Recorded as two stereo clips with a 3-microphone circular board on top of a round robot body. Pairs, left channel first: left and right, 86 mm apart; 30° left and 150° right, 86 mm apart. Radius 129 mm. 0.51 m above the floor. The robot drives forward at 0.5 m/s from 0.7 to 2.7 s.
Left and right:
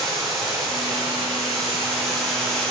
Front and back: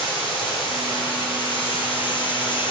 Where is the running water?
5° left, 3.5 m.